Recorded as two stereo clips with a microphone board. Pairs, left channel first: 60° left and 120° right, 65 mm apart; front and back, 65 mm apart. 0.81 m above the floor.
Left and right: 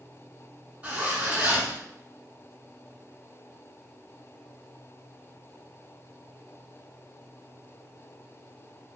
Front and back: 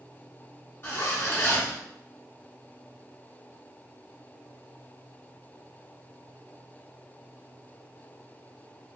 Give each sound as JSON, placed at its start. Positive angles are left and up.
{"t": 0.8, "sound": "a zipper", "azimuth_deg": -55, "distance_m": 1.3}